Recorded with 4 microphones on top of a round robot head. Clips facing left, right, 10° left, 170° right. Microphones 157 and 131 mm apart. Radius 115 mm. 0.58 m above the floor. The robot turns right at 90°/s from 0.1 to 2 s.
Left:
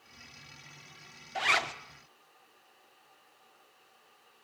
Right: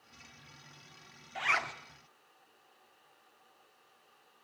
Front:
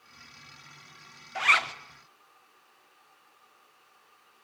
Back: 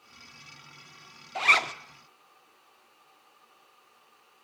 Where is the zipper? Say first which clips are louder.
Left 4 dB, back 1 dB; 130° left, 1.3 m; by 1.7 s 160° left, 1.3 m.